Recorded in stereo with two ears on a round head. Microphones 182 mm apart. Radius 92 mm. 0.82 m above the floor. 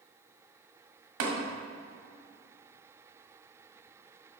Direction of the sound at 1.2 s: 65° right (ahead or behind).